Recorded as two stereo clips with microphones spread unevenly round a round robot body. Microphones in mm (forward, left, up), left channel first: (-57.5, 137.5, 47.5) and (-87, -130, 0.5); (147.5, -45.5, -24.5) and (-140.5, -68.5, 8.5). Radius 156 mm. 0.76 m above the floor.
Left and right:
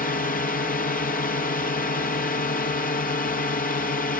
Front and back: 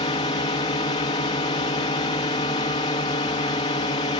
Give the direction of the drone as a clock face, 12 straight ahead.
11 o'clock.